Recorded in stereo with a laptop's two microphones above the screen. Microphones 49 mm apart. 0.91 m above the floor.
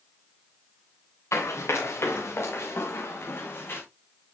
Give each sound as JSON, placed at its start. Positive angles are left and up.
{"t": 1.3, "sound": "running footsteps", "side_deg": 70, "distance_m": 6.0}